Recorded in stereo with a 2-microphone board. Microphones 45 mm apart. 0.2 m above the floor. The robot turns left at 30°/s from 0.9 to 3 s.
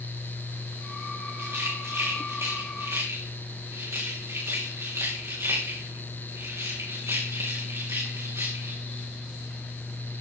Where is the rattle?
45° right (ahead or behind), 4.5 m; by 8.8 s 90° right, 4.5 m.